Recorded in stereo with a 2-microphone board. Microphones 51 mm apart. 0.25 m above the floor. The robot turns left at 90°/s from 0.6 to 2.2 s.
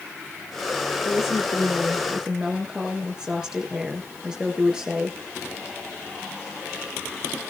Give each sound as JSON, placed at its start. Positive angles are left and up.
{"t": 1.1, "sound": "a woman speaking", "azimuth_deg": 90, "distance_m": 4.0}